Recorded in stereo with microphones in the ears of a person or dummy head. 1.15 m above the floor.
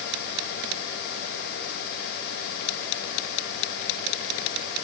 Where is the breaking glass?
I don't hear breaking glass.